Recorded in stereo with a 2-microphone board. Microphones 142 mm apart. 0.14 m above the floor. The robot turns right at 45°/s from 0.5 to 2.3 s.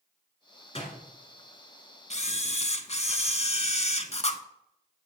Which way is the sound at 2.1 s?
50° left (ahead or behind).